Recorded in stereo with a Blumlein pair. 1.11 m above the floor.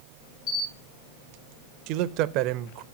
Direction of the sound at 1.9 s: 40° right.